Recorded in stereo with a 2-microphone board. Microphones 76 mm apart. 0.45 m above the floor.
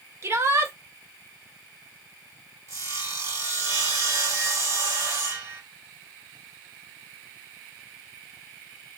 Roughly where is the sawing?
Right.